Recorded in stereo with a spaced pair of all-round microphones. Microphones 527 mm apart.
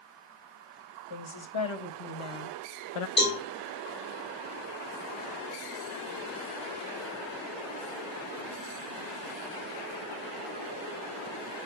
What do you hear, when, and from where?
1.1 s a woman speaking: 60° left (ahead or behind), 1.6 m; by 3.1 s 80° left, 0.6 m
3.2 s a cowbell: 75° left (ahead or behind), 4 m